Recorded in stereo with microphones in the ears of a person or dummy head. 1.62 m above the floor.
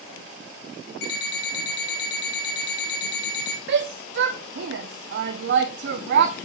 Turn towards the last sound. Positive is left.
turn(degrees=-60)  # may be behind; listen again after turning